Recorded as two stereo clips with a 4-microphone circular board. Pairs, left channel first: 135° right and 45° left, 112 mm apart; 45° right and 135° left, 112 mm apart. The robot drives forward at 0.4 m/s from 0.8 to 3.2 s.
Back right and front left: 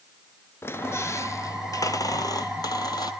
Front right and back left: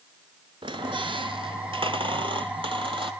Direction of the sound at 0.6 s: 160° left.